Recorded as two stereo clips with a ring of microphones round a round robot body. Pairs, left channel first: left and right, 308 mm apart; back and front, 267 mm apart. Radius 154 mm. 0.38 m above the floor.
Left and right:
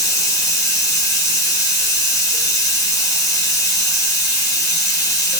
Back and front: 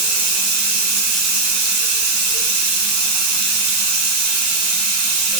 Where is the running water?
10° left, 2.5 m.